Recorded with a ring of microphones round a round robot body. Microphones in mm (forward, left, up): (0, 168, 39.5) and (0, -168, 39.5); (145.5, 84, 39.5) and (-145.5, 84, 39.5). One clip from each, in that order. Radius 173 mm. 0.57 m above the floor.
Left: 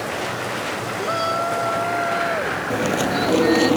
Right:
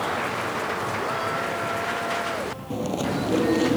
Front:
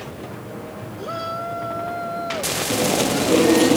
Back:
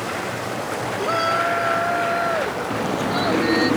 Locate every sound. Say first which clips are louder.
1.0 s a shout: left 4 dB, back 7 dB; 145° left; by 3.7 s 135° left
2.7 s chewing: left 5 dB, front 2 dB; 20° left